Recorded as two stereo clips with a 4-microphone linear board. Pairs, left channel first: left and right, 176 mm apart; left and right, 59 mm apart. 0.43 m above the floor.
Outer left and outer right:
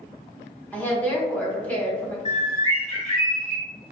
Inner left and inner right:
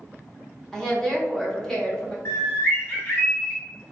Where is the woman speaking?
10° left (ahead or behind), 0.8 m.